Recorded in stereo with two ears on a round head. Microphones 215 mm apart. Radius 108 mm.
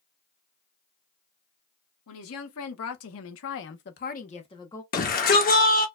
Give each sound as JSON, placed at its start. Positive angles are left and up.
{"t": 2.1, "sound": "a woman speaking", "side_deg": 60, "distance_m": 1.4}
{"t": 4.9, "sound": "a shout", "side_deg": 35, "distance_m": 1.0}